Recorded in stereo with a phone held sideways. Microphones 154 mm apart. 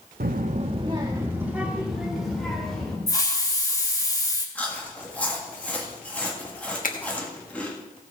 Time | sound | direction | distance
0.2 | a child speaking | 75° right (ahead or behind) | 0.5 m
3.1 | a hiss | 20° left (ahead or behind) | 1.5 m
4.5 | chewing | 10° left (ahead or behind) | 1.8 m
6.8 | a finger snap | 60° left (ahead or behind) | 1.3 m